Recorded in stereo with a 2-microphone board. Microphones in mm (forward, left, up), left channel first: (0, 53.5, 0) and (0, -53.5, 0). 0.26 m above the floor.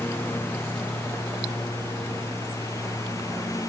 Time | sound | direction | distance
0.0 | a lawn mower | 20° left (ahead or behind) | ?